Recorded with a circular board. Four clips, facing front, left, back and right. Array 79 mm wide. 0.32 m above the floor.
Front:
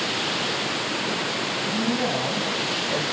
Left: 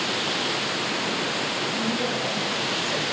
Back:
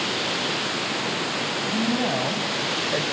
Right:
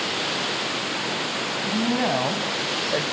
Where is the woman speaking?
95° right, 3 m; by 3.0 s 115° right, 1.2 m.